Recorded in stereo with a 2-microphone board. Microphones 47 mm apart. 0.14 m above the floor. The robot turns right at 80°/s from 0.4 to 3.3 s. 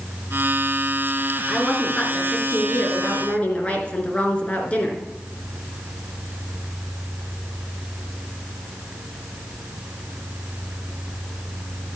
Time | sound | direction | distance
1.5 | a woman speaking | 10° right | 2 m